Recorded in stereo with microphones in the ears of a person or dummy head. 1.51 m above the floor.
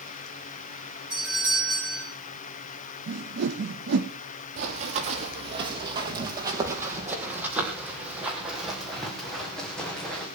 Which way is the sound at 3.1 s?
65° right (ahead or behind).